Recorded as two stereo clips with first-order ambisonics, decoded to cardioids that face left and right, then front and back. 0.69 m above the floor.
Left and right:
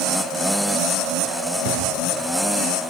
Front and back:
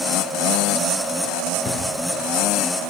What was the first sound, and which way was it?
A drawer, 80° right.